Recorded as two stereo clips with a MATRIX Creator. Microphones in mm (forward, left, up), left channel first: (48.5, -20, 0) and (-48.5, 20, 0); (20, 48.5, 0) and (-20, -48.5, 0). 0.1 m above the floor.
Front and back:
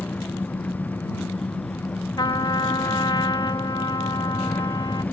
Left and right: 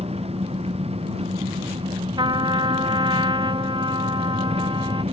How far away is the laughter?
I don't hear laughter.